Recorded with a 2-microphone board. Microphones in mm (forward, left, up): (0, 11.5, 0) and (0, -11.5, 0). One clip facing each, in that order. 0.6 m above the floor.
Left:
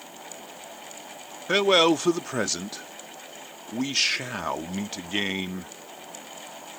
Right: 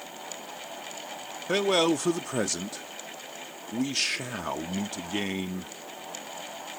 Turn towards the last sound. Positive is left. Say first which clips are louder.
# left 4 dB
turn(degrees=30)  # may be behind; listen again after turning